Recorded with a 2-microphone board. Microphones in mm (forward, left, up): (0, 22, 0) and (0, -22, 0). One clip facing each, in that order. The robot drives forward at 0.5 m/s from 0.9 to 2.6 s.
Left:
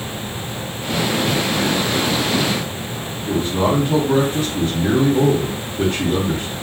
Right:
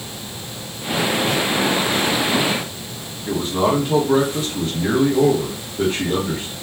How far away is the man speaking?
About 0.9 m.